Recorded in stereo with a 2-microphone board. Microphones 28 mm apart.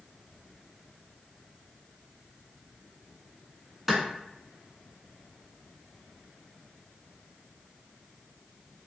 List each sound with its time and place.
3.9 s a clap: 10° right (ahead or behind), 1.0 m